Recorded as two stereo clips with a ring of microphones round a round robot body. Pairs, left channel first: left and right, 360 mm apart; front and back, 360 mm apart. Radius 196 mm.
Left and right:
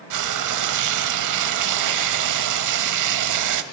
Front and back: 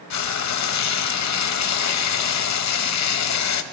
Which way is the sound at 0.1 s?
50° right.